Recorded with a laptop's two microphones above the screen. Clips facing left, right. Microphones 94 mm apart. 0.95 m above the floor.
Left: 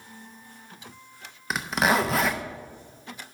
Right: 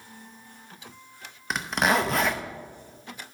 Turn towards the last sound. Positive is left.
turn(degrees=0)  # may be behind; listen again after turning